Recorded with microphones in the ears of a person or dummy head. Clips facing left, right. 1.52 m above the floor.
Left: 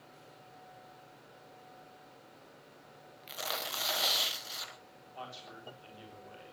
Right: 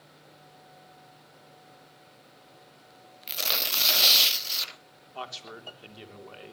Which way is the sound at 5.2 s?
75° right (ahead or behind).